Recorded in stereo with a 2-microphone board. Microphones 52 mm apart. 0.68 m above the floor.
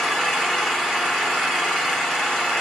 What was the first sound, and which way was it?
An engine running, 10° left (ahead or behind).